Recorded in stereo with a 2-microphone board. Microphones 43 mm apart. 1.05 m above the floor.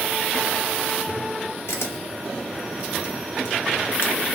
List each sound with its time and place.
1.7 s a camera shutter: 75° left (ahead or behind), 0.7 m